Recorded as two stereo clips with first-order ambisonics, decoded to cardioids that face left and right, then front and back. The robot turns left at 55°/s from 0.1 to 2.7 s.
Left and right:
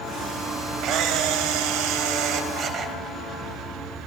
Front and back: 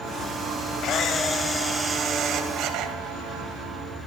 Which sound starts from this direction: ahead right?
A camera shutter, at 0.8 s.